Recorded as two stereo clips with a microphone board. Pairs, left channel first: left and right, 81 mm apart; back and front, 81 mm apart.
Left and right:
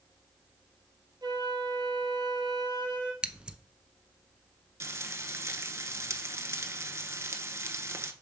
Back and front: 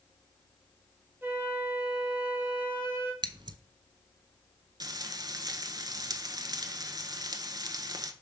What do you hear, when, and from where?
1.2 s a flute: 65° right, 1.8 m
3.2 s scissors: 10° right, 0.5 m
4.8 s frying: 35° right, 0.7 m